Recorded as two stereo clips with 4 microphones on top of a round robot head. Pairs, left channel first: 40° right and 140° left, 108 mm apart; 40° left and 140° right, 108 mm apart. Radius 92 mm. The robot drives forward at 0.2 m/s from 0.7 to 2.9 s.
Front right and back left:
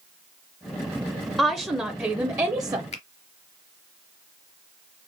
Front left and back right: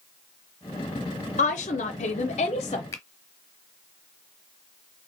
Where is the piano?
I don't hear a piano.